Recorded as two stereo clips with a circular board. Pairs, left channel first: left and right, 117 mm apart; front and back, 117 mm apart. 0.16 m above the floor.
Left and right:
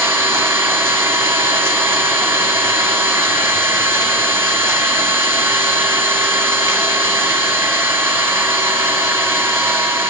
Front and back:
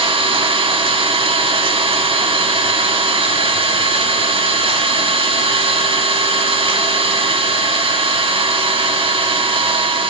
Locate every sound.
0.0 s an engine running: 155° right, 2.5 m